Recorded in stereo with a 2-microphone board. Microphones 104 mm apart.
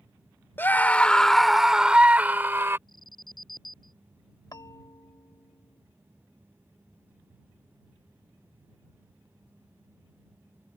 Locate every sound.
0.6 s a scream: 20° left (ahead or behind); by 2.8 s 25° right (ahead or behind)
2.9 s an alarm: 50° left (ahead or behind)
4.5 s a bell: 40° left (ahead or behind)